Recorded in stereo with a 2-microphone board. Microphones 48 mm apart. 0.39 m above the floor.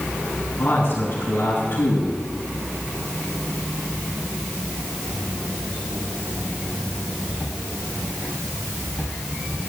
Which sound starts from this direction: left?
A man speaking, at 0.6 s.